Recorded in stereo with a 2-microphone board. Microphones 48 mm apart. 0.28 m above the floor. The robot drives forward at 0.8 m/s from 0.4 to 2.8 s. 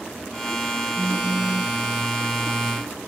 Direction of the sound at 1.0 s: 35° right (ahead or behind).